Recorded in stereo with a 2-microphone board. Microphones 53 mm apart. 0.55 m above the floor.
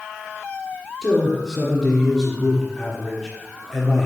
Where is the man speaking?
5° left (ahead or behind), 1.4 m.